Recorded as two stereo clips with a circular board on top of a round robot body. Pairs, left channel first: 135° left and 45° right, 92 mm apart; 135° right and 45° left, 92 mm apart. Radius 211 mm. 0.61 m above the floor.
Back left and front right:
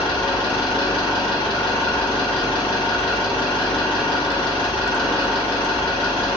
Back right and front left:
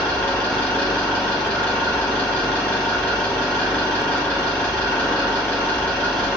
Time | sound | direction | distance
0.0 | an engine running | 150° left | 1.4 m